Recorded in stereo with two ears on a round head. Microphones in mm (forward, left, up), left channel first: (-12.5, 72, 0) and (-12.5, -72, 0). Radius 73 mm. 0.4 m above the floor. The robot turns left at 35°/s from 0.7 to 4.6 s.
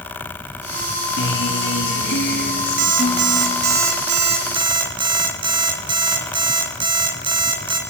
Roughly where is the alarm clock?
Right.